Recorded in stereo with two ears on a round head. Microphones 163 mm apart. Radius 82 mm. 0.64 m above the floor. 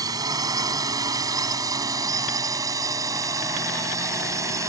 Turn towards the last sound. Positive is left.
turn(degrees=-20)  # may be behind; listen again after turning